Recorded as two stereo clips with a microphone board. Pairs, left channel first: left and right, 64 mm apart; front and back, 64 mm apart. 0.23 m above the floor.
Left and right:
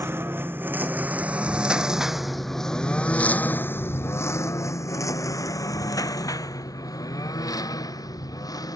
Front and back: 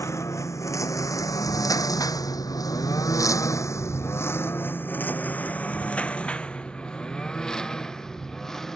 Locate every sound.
0.0 s a lawn mower: 40° right; by 8.8 s 85° left